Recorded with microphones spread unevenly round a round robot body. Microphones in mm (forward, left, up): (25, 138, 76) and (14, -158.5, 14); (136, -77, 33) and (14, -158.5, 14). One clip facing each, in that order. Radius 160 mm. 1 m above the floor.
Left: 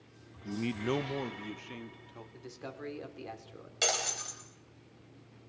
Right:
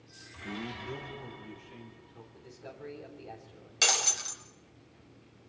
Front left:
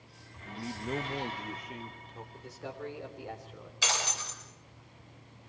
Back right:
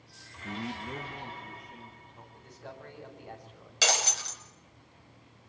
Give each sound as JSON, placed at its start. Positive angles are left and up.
{"t": 0.4, "sound": "a man speaking", "azimuth_deg": 180, "distance_m": 0.6}
{"t": 2.3, "sound": "a man speaking", "azimuth_deg": 80, "distance_m": 4.0}
{"t": 3.8, "sound": "breaking glass", "azimuth_deg": -165, "distance_m": 3.5}